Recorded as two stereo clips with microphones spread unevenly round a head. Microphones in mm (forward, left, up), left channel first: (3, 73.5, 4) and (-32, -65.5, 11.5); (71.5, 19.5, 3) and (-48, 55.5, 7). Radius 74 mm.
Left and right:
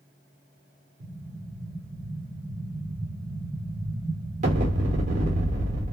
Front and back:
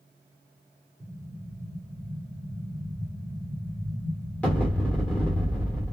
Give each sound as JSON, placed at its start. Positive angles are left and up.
{"t": 1.0, "sound": "an explosion", "azimuth_deg": -90, "distance_m": 1.1}